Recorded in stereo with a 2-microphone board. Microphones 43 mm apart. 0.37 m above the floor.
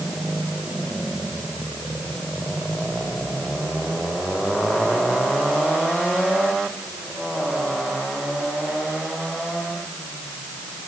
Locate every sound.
Only background noise.